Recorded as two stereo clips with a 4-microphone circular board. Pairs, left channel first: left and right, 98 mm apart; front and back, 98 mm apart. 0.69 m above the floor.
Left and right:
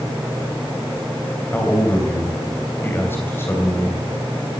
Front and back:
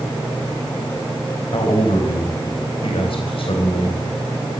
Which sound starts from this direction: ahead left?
A man speaking, at 1.5 s.